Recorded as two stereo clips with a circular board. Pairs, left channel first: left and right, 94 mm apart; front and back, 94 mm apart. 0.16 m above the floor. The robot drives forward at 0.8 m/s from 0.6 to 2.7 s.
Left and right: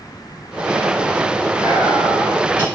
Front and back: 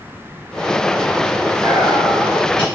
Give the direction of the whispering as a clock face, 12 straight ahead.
5 o'clock.